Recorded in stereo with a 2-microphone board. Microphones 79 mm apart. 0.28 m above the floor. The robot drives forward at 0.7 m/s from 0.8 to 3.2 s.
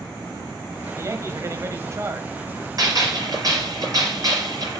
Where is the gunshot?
45° right (ahead or behind), 5.5 m.